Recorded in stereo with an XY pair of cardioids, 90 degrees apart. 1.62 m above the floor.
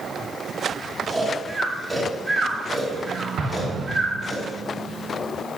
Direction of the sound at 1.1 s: 10° right.